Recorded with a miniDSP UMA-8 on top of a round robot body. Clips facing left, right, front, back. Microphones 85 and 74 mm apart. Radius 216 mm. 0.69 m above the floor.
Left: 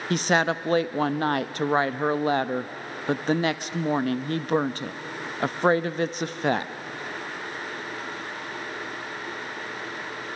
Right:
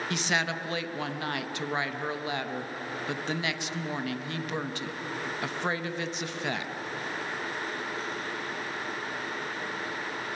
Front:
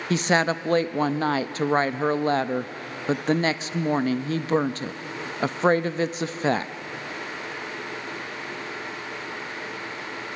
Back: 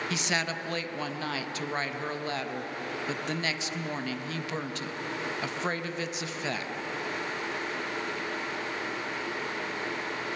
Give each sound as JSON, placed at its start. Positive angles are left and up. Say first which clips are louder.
{"t": 0.1, "sound": "a woman speaking", "louder": "left 9 dB, front 13 dB", "azimuth_deg": 45, "distance_m": 0.9}